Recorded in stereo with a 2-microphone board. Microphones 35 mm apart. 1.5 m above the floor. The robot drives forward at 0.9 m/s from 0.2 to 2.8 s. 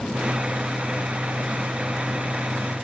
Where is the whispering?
I don't hear whispering.